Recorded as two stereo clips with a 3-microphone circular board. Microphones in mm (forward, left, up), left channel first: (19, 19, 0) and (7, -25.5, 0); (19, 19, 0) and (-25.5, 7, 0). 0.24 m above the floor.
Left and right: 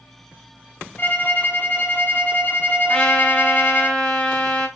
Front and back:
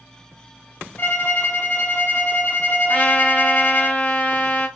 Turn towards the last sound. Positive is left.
turn(degrees=15)